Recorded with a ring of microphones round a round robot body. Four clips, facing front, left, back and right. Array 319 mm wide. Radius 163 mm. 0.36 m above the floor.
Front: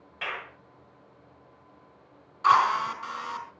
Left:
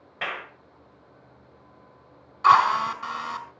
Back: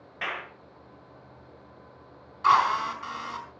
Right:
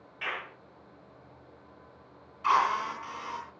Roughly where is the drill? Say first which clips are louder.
Left 8 dB, even; left.